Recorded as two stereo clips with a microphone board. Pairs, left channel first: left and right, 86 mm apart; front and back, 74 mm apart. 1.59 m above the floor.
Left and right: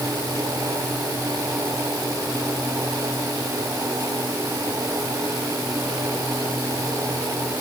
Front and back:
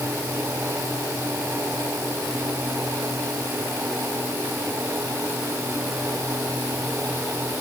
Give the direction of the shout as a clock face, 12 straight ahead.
I don't hear a shout.